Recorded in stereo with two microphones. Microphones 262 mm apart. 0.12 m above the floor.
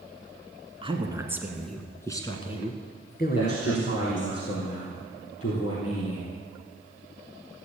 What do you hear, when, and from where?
0.8 s a woman speaking: 20° right (ahead or behind), 1.4 m; by 4.3 s 50° left (ahead or behind), 2 m
3.4 s a man speaking: 60° left (ahead or behind), 3.5 m